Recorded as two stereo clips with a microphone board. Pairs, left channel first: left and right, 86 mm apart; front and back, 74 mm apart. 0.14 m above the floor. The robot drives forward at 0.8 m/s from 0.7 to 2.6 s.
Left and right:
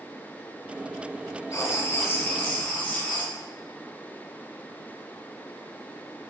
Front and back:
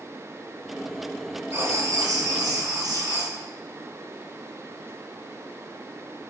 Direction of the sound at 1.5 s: 135° left.